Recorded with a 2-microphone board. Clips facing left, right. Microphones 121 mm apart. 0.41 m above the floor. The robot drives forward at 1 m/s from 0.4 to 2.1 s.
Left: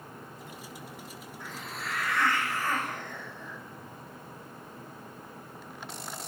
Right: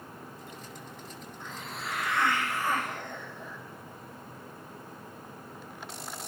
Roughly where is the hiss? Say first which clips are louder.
Even; centre.